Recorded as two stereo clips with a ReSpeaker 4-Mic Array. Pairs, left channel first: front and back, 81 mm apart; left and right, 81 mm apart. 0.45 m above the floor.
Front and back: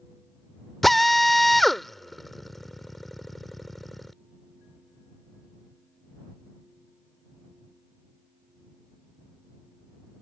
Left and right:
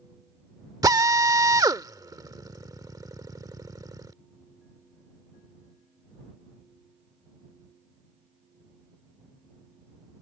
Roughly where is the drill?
Right.